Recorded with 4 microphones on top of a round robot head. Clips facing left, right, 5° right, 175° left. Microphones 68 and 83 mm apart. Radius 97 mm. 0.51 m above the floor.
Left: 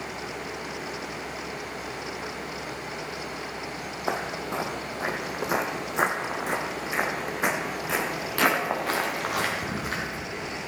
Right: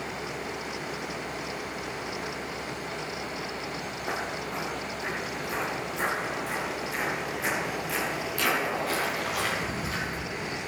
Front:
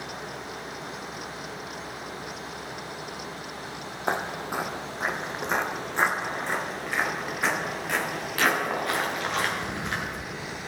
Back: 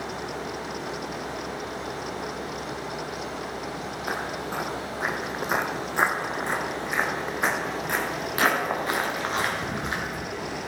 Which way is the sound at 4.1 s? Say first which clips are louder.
Left 4 dB, front 3 dB; 50° left.